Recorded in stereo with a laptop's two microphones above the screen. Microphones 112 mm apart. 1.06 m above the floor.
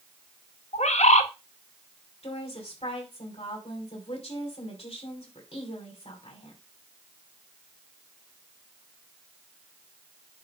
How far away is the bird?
About 1.0 m.